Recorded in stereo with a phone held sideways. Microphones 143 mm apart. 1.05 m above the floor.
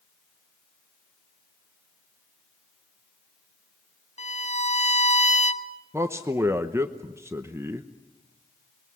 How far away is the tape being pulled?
I don't hear tape being pulled.